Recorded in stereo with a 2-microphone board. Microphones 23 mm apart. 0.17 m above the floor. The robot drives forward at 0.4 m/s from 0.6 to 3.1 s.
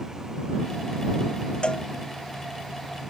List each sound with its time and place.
1.6 s a cowbell: 45° left (ahead or behind)